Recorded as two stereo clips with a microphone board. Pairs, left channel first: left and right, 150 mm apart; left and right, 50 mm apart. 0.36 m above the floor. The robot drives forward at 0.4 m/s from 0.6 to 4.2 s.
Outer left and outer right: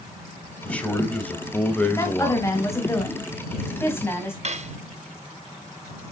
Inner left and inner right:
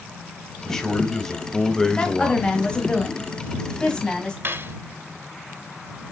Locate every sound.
0.6 s a man speaking: 10° left (ahead or behind), 1.6 m; by 2.5 s 15° left (ahead or behind), 1.0 m
2.0 s a woman speaking: 20° left (ahead or behind), 2 m; by 4.3 s 15° left (ahead or behind), 3 m
4.4 s cutlery clinking: 50° right (ahead or behind), 0.7 m